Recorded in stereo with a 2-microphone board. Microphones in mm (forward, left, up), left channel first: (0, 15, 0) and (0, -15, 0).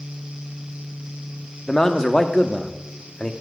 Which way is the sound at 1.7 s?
20° left (ahead or behind).